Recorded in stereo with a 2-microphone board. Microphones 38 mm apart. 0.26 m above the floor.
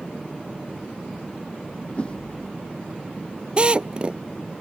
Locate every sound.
2.0 s a whoosh: 30° left (ahead or behind)
3.6 s a drill: 30° right (ahead or behind)